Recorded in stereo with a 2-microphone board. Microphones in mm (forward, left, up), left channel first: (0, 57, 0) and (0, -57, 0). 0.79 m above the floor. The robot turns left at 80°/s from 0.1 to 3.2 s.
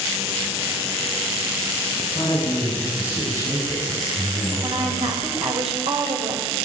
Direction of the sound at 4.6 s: 70° right (ahead or behind).